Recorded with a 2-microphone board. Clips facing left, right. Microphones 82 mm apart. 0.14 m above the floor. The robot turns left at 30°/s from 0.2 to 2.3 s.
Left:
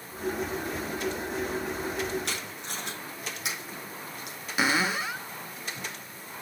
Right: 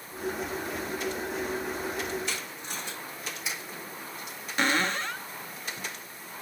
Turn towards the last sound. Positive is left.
turn(degrees=10)  # may be behind; listen again after turning